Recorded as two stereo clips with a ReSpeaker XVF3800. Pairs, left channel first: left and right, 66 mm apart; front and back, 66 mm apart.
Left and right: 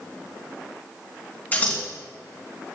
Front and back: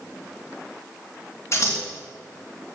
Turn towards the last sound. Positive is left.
turn(degrees=35)